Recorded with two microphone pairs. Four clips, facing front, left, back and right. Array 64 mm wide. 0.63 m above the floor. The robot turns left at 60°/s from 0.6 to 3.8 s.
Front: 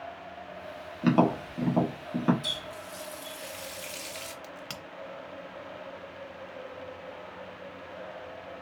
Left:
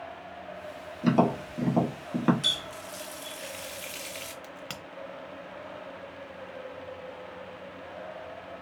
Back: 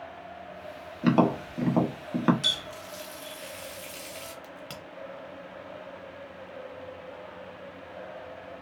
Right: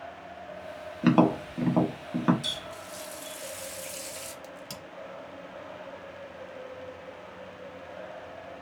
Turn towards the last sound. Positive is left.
turn(degrees=60)